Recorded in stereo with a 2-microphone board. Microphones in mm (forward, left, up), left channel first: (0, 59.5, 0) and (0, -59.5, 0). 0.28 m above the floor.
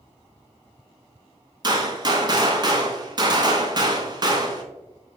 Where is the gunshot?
35° right (ahead or behind), 0.8 m.